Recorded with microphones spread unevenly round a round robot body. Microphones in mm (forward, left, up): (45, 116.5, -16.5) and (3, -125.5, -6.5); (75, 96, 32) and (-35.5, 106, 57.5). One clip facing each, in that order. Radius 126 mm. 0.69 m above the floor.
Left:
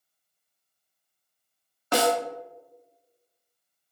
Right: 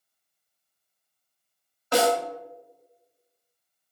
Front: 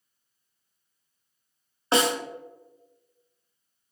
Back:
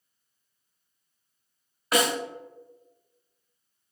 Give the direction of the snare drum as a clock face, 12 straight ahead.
10 o'clock.